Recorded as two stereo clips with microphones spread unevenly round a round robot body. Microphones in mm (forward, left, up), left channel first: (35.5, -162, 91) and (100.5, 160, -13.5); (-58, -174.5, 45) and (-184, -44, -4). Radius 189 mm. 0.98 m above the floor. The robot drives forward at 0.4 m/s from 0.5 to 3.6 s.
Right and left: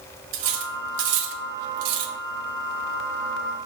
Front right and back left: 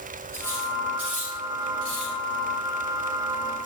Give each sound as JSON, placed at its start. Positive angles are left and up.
{"t": 0.3, "sound": "cutlery clinking", "azimuth_deg": 50, "distance_m": 1.3}